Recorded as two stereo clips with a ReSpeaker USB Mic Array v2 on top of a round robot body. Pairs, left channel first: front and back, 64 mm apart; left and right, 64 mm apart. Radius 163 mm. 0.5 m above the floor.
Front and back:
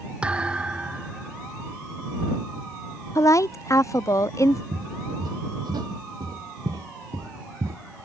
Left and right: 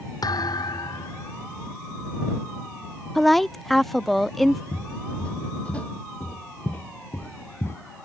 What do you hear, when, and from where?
0.2 s a thud: 105° left
3.1 s a woman speaking: 5° left
4.7 s footsteps: 165° left; by 7.8 s 140° left